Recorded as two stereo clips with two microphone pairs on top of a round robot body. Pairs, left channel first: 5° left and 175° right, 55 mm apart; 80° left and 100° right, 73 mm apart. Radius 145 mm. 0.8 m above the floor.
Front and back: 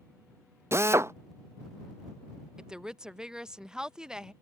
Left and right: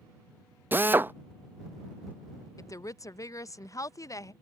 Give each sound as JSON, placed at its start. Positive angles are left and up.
{"t": 0.7, "sound": "a drill", "azimuth_deg": -155}
{"t": 2.6, "sound": "a woman speaking", "azimuth_deg": 115}